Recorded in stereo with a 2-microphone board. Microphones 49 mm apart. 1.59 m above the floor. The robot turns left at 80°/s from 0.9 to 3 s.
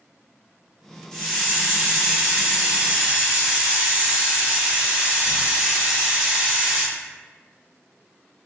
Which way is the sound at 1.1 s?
15° left (ahead or behind).